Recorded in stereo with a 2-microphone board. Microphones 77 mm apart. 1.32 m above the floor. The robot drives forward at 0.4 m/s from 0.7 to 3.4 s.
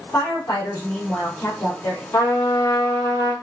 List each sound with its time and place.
0.1 s a woman speaking: 35° left (ahead or behind), 3 m; by 2.0 s 45° left (ahead or behind), 2.5 m
2.1 s a trumpet: 50° left (ahead or behind), 3.5 m; by 3.3 s 55° left (ahead or behind), 3 m